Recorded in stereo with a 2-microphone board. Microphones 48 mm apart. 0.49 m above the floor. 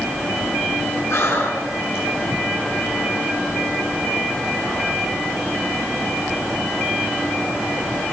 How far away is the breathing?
About 7.5 m.